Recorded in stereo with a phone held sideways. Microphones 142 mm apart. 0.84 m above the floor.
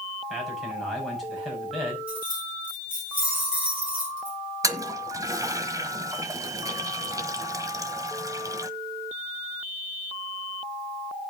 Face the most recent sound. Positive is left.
turn(degrees=-25)  # may be behind; listen again after turning